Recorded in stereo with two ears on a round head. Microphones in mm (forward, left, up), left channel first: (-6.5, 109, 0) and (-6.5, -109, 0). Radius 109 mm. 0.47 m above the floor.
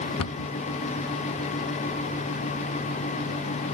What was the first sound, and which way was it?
A cupboard door, 60° left (ahead or behind).